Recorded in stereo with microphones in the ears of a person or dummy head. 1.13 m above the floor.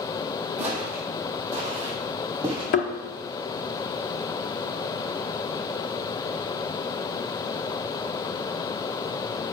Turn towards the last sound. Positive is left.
turn(degrees=50)  # may be behind; listen again after turning